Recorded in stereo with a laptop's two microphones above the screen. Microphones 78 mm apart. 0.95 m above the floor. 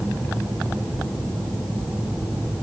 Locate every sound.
Only background noise.